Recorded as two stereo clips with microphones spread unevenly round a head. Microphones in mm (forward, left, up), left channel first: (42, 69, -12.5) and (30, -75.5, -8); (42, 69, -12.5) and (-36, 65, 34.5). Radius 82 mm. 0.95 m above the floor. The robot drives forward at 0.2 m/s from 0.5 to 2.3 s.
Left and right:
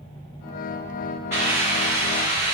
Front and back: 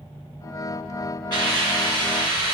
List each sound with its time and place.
1.3 s a hiss: 170° right, 1.8 m